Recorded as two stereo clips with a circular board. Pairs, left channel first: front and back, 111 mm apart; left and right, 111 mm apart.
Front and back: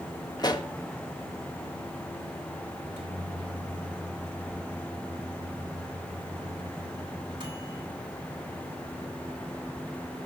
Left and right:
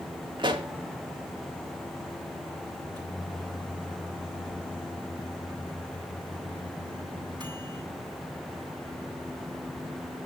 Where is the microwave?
135° right, 8 m.